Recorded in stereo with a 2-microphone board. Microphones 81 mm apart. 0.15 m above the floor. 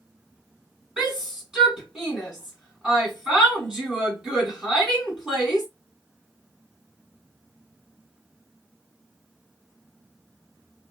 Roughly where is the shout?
Centre.